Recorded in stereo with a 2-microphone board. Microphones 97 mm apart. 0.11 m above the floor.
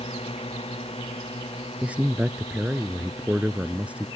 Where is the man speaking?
15° right (ahead or behind).